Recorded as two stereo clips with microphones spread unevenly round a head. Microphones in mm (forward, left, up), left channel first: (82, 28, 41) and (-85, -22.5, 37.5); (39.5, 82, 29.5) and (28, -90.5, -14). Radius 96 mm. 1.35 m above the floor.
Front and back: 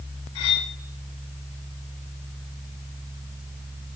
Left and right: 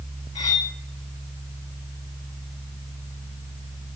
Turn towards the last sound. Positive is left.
turn(degrees=40)